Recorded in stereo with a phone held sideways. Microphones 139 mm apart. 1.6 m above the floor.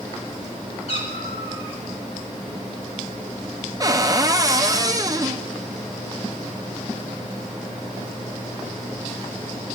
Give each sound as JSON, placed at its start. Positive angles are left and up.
{"t": 0.9, "sound": "a cat meowing", "side_deg": 45, "distance_m": 2.5}
{"t": 3.8, "sound": "a cupboard door", "side_deg": -25, "distance_m": 0.6}